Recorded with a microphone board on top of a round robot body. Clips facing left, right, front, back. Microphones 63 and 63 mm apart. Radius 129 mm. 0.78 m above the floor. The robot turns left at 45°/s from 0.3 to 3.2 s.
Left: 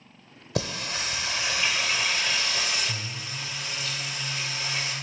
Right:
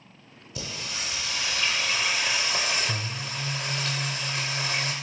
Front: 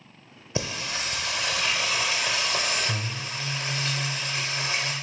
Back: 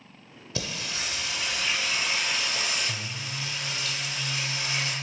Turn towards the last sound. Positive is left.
turn(degrees=-55)